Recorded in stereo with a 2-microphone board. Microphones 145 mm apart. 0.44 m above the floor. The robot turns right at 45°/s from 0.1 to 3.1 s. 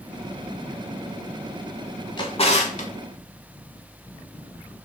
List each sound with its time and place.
2.2 s a drawer: 35° left (ahead or behind), 0.6 m; by 2.9 s 65° left (ahead or behind), 0.6 m